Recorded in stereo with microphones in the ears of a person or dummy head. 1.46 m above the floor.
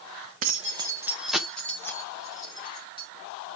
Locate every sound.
0.4 s keys jangling: 40° right (ahead or behind), 0.8 m; by 3.1 s 30° left (ahead or behind), 2 m